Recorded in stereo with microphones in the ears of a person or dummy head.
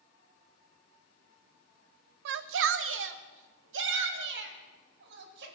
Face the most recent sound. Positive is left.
turn(degrees=-70)  # may be behind; listen again after turning